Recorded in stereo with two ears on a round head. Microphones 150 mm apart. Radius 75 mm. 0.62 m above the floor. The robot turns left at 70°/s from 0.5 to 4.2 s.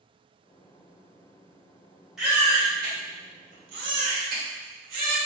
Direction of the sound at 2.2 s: Centre (ahead or behind).